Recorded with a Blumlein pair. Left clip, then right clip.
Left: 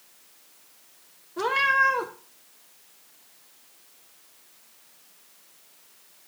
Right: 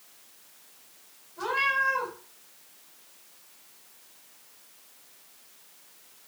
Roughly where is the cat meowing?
Ahead left.